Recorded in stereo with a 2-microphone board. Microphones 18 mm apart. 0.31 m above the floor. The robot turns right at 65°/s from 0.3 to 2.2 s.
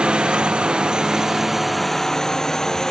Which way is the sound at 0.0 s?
75° right (ahead or behind).